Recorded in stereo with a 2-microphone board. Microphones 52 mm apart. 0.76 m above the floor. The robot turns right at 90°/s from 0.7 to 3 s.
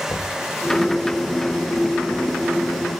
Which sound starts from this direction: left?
Knocking, at 0.1 s.